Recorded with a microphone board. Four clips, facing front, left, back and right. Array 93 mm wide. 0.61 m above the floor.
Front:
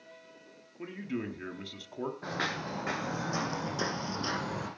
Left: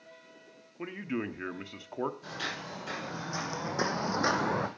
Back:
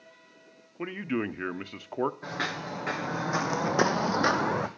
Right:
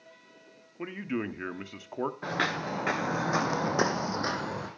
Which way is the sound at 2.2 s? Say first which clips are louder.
Right 8 dB, back 1 dB; 90° right.